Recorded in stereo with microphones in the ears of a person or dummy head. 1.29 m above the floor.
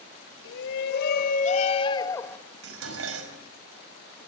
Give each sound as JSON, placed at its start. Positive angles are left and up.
{"t": 0.5, "sound": "a shout", "side_deg": 70, "distance_m": 3.0}
{"t": 2.6, "sound": "dishes clattering", "side_deg": -85, "distance_m": 4.5}